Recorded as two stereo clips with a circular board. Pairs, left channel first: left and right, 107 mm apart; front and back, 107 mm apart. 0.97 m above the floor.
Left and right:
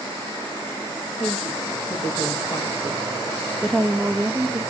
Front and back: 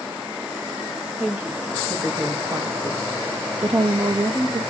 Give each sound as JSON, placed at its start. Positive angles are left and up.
{"t": 1.2, "sound": "a woman speaking", "azimuth_deg": 110, "distance_m": 2.5}